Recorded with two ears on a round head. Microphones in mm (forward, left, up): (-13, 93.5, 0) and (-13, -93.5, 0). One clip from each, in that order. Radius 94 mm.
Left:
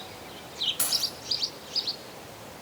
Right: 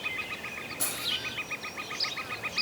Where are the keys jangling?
65° left (ahead or behind), 4.5 m.